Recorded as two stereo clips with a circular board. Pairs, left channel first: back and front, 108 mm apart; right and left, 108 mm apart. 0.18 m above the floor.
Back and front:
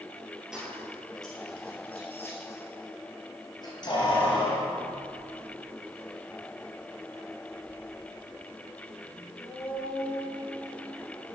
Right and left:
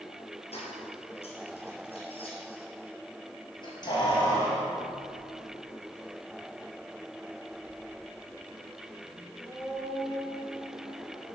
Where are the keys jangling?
85° right, 2.5 m; by 11.3 s 175° right, 6.5 m.